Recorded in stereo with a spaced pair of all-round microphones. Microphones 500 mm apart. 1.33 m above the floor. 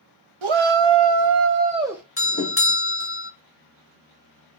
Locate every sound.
0.4 s a shout: 70° right (ahead or behind), 0.7 m; by 2.0 s centre (ahead or behind), 0.7 m
2.2 s a doorbell: 25° left (ahead or behind), 0.6 m